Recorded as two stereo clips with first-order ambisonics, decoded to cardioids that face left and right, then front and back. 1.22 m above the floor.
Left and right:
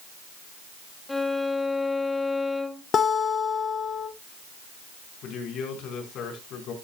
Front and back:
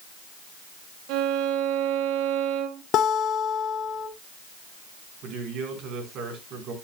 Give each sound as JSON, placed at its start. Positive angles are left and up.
{"t": 1.1, "sound": "a violin", "azimuth_deg": 175, "distance_m": 1.3}
{"t": 2.9, "sound": "a guitar", "azimuth_deg": 35, "distance_m": 1.2}
{"t": 5.2, "sound": "a man speaking", "azimuth_deg": 135, "distance_m": 4.5}